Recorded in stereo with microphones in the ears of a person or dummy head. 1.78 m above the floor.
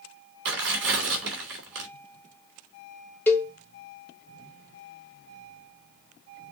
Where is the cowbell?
10° left (ahead or behind), 1.0 m.